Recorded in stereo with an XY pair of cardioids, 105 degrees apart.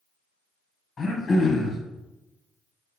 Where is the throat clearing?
40° left, 1.1 m.